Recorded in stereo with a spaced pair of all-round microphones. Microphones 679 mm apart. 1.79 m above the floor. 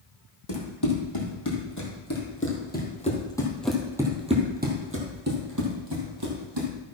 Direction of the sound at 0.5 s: 35° left (ahead or behind).